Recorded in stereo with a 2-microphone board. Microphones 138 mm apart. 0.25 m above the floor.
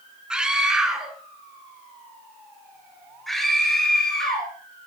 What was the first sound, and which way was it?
A scream, 5° right (ahead or behind).